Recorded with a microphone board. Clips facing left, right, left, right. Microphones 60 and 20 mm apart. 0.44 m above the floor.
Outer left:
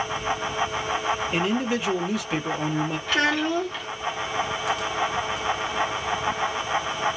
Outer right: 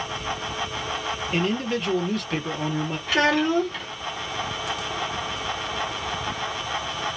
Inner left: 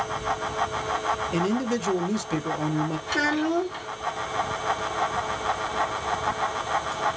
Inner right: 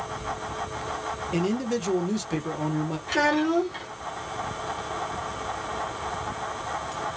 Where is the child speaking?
10° right (ahead or behind), 1.1 m.